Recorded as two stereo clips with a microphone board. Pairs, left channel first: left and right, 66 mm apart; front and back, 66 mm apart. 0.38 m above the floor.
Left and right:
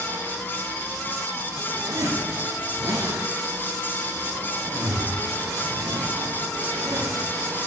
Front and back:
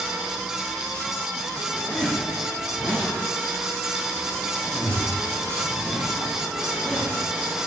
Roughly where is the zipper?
Right.